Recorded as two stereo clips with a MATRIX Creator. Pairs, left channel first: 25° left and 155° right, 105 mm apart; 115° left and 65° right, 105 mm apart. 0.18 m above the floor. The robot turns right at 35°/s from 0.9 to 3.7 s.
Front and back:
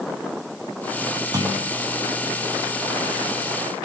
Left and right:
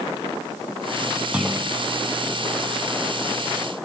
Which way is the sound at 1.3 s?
140° right.